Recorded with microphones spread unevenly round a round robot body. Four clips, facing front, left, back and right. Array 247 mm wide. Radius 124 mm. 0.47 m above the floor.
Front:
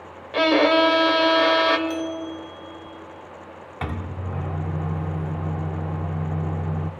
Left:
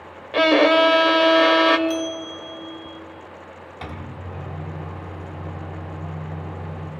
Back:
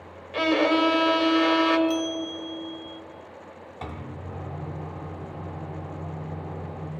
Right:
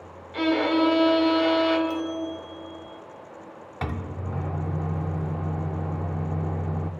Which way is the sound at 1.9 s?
125° left.